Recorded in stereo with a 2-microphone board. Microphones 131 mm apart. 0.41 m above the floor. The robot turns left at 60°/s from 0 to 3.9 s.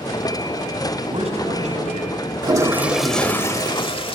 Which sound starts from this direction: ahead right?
A man speaking, at 1.0 s.